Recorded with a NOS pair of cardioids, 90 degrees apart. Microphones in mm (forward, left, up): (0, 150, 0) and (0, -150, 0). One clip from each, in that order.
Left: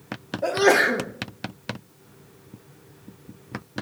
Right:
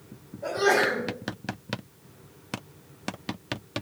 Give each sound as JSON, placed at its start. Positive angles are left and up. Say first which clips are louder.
{"t": 0.4, "sound": "a sneeze", "louder": "left 4 dB", "azimuth_deg": 60, "distance_m": 1.2}